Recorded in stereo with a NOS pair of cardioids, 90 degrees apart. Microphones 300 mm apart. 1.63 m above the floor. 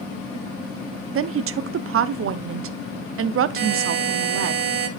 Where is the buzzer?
35° right, 1.8 m.